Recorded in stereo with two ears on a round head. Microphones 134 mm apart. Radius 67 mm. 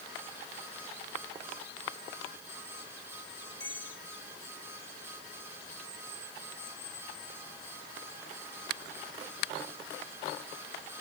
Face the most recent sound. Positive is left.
turn(degrees=30)  # may be behind; listen again after turning